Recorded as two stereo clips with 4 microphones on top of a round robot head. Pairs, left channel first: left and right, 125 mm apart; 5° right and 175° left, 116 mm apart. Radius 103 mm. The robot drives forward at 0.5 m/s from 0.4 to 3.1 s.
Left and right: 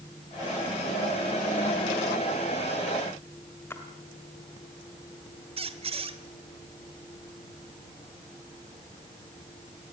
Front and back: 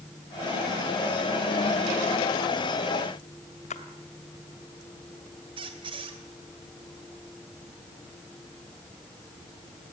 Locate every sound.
3.7 s a splash: 15° left, 2 m
5.6 s a squeak: 130° right, 1.8 m